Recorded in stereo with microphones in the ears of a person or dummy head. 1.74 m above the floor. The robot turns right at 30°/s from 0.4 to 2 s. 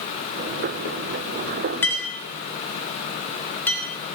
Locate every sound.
1.8 s a clink: 10° left (ahead or behind), 1.9 m; by 3.8 s 5° left (ahead or behind), 1.9 m